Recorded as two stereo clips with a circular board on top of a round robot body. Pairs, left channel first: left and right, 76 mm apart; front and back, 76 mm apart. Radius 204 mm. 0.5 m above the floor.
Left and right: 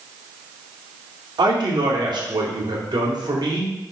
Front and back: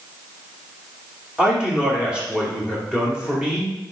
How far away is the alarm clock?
I don't hear an alarm clock.